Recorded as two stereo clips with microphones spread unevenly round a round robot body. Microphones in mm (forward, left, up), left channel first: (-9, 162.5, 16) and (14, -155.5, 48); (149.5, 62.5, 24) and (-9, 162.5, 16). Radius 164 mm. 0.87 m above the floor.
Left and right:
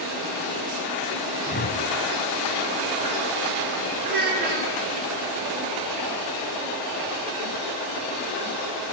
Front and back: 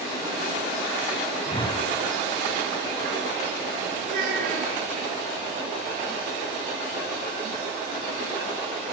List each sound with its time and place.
1.5 s a whoosh: 35° left, 1.7 m
4.0 s a child speaking: 150° right, 6.5 m